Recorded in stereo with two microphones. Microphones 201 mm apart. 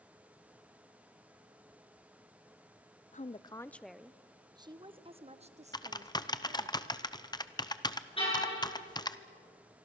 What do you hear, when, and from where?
3.1 s a woman speaking: 40° left (ahead or behind), 0.5 m; by 6.7 s 40° right (ahead or behind), 1.9 m
5.7 s typing on a keyboard: 20° left (ahead or behind), 0.8 m
8.2 s a car horn: 25° left (ahead or behind), 10 m